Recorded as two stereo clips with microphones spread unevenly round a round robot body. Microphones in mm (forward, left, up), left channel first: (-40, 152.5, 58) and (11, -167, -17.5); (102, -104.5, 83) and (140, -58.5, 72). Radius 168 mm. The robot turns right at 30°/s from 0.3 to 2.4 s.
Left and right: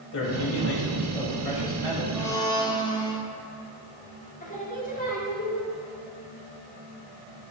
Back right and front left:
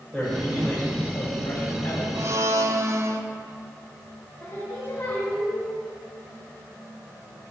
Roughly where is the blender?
Ahead.